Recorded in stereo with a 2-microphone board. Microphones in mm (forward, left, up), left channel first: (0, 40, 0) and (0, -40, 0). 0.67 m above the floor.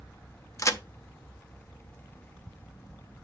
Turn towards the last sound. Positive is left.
turn(degrees=40)  # may be behind; listen again after turning